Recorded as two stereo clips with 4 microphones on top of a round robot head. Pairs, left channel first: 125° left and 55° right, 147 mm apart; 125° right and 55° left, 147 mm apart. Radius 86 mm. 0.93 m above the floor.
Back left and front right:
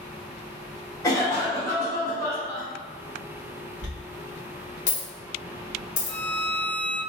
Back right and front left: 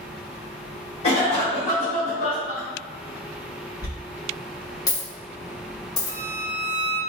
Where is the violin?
80° left, 1.4 m.